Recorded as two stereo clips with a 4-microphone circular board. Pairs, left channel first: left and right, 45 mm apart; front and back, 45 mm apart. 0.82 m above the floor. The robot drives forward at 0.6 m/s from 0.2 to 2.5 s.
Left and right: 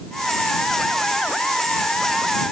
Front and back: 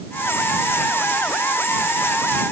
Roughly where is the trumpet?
No trumpet in this recording.